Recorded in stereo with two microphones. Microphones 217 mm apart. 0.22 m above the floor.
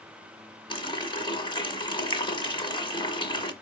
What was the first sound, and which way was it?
A running tap, 20° left (ahead or behind).